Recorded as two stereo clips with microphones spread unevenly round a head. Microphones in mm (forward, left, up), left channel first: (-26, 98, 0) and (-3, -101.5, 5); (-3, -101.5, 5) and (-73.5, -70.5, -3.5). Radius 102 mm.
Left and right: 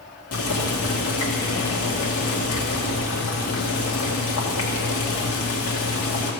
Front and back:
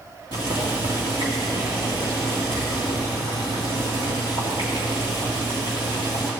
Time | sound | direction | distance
0.3 | boiling | 95° left | 1.7 m